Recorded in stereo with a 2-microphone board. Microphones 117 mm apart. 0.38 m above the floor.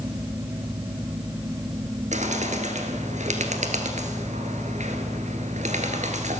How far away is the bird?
About 1.5 m.